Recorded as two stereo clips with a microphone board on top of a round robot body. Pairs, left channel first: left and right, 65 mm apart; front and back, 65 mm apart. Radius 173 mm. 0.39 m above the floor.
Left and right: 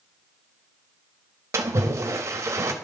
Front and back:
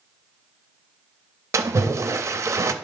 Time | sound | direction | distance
1.5 | a splash | 135° right | 0.6 m